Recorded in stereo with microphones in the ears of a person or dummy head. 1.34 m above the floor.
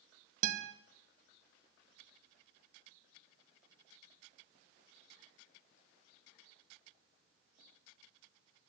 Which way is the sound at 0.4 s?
50° right (ahead or behind).